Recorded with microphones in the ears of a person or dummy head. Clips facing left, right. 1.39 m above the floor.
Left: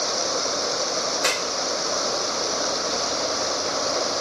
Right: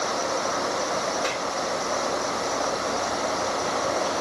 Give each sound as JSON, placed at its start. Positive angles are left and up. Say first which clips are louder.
{"t": 0.0, "sound": "running water", "louder": "even", "side_deg": 35}
{"t": 1.2, "sound": "a clap", "louder": "left 1 dB", "side_deg": 60}